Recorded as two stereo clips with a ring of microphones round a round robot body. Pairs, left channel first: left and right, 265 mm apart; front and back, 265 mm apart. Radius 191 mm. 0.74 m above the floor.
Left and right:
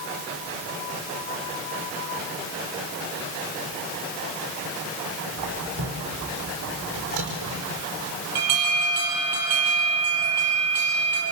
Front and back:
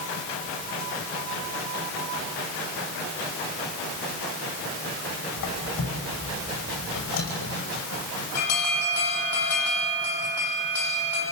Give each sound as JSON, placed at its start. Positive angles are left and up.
{"t": 5.4, "sound": "a squeak", "azimuth_deg": -60, "distance_m": 5.5}
{"t": 8.3, "sound": "an alarm", "azimuth_deg": -45, "distance_m": 8.5}